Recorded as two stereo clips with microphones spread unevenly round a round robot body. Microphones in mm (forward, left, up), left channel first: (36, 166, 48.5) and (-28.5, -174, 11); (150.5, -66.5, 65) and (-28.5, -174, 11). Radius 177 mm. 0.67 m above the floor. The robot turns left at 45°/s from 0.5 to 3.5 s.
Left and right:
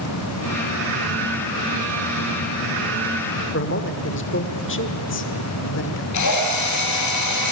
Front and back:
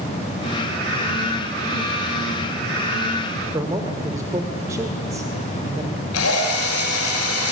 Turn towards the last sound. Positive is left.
turn(degrees=40)